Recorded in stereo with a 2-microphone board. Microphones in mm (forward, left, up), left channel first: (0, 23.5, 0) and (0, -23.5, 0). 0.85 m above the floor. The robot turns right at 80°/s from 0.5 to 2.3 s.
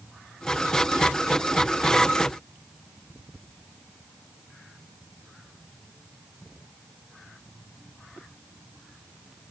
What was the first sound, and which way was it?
Only background noise.